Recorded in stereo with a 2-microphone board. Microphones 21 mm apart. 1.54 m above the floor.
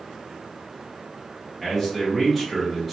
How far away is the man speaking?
About 1.2 m.